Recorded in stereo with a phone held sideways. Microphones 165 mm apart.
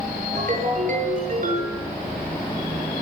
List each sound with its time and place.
0.3 s a ringtone: 50° right (ahead or behind), 9.5 m